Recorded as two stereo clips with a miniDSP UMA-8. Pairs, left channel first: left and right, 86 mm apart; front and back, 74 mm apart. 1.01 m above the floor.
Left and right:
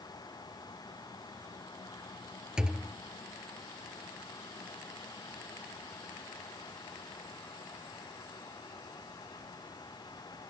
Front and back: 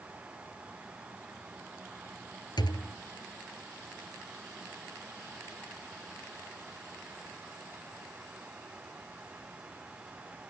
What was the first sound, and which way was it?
A thud, 10° right.